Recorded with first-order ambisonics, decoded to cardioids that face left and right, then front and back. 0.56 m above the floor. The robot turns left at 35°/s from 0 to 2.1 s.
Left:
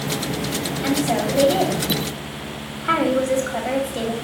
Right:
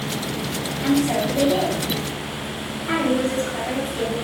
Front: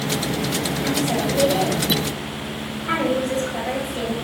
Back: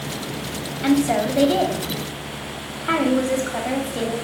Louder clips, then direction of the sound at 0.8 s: Right 1 dB, back 6 dB; straight behind.